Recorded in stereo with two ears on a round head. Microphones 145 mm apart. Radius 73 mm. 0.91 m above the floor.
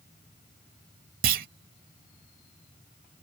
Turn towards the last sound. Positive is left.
turn(degrees=-55)  # may be behind; listen again after turning